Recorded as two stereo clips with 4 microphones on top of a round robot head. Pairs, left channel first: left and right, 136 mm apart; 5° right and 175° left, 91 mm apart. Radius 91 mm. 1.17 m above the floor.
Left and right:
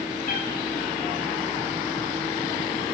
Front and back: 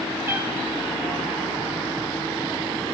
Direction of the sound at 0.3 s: 110° left.